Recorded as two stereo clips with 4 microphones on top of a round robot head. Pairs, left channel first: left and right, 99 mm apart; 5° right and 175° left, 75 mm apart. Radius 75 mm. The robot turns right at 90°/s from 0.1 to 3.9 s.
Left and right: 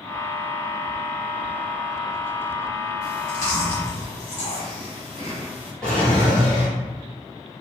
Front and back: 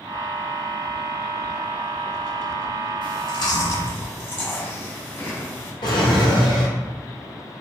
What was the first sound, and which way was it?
Chewing, 30° right.